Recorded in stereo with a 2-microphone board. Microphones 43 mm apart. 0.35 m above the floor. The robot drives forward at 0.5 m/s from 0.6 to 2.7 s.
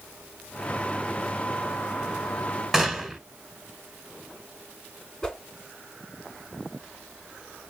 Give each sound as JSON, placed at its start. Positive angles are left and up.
{"t": 2.7, "sound": "a gunshot", "side_deg": -5, "distance_m": 1.3}
{"t": 5.2, "sound": "a whoosh", "side_deg": 10, "distance_m": 1.0}